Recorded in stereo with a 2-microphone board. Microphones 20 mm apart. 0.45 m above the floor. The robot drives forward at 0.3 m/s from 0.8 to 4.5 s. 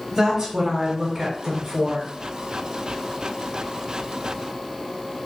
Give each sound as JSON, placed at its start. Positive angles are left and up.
{"t": 0.1, "sound": "a woman speaking", "side_deg": -40, "distance_m": 1.5}